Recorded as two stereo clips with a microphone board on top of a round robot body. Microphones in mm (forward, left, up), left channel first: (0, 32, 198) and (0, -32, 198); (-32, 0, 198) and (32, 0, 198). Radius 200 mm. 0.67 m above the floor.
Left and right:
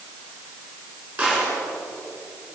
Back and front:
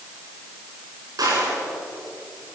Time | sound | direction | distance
1.2 | a gunshot | 25° right | 10 m